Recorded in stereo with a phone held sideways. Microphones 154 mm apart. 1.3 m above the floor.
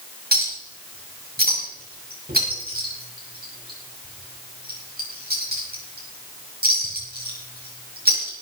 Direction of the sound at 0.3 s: 80° right.